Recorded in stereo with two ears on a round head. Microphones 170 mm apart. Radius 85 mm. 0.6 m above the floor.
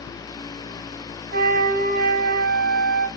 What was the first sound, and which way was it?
A flute, 55° right (ahead or behind).